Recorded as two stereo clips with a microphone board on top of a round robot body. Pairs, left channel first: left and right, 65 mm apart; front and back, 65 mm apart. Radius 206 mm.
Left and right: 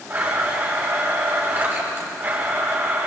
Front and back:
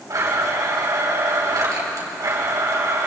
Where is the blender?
145° right, 5 m.